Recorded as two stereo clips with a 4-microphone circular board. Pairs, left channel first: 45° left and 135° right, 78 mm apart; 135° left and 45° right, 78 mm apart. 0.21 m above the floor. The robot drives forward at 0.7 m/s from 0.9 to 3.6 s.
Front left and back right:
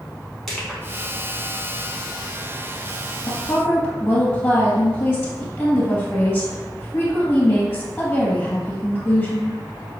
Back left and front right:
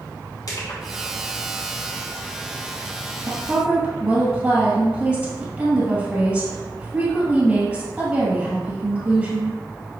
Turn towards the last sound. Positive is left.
turn(degrees=-5)